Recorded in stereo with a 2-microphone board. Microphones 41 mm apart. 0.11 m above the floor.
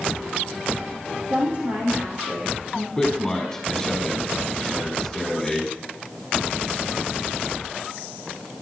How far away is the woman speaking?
About 4 m.